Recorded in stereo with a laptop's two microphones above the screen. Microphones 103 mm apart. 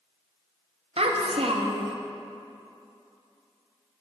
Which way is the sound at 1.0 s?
70° right (ahead or behind).